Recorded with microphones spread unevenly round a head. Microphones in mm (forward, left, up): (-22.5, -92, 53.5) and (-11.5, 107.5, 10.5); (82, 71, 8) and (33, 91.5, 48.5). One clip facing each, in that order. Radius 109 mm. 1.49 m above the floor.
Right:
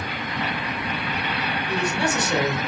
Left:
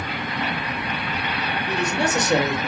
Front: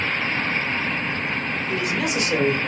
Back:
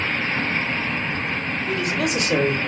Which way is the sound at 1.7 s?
130° left.